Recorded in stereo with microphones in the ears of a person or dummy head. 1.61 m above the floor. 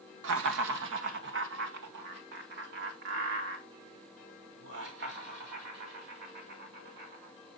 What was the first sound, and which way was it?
Laughter, 70° right (ahead or behind).